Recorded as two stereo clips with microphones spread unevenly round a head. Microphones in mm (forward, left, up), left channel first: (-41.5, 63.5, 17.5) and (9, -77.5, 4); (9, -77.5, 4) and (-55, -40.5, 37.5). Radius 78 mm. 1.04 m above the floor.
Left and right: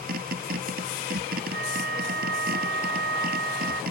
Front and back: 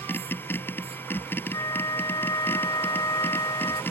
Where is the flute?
75° right.